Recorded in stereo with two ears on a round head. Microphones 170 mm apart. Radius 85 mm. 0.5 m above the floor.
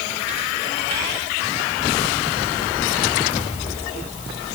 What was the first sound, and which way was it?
Only background noise.